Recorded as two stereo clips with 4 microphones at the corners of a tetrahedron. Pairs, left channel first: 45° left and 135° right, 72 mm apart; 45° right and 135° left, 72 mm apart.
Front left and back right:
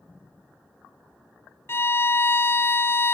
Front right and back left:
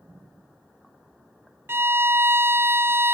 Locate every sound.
1.7 s a violin: 90° left, 0.5 m